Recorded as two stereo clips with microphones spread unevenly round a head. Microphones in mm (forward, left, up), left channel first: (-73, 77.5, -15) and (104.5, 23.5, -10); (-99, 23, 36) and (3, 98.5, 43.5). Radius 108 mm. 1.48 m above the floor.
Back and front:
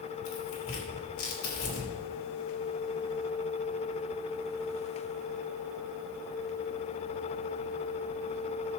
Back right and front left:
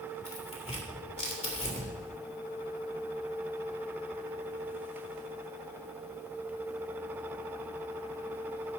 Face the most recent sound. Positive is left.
turn(degrees=180)